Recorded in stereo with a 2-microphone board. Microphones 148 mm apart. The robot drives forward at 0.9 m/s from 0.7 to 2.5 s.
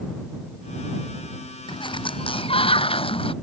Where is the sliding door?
30° left (ahead or behind); by 3.3 s 40° left (ahead or behind).